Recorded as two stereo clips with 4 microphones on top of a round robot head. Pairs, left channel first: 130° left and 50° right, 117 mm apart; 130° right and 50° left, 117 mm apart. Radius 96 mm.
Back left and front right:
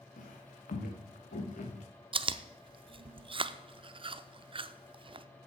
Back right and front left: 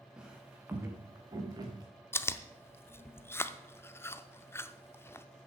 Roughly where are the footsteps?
Behind left.